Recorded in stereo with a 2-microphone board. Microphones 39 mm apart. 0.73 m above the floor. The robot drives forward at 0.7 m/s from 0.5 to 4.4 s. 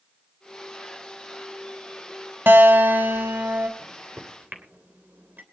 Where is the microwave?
55° right (ahead or behind), 2.5 m; by 5.4 s 50° right (ahead or behind), 3 m.